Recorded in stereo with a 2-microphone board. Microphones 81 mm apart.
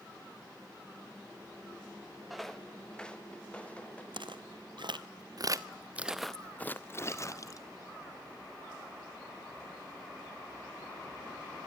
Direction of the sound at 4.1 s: 85° right.